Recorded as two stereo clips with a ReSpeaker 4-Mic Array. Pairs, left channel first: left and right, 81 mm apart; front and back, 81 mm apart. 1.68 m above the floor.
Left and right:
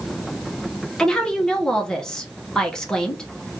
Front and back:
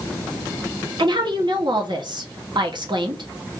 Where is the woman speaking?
170° left, 1.2 m.